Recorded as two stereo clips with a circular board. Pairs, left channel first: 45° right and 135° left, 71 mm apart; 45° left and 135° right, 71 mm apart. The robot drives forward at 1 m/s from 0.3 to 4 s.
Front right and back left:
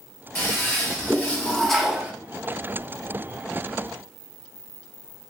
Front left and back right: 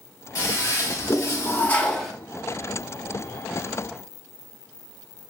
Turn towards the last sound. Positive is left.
turn(degrees=175)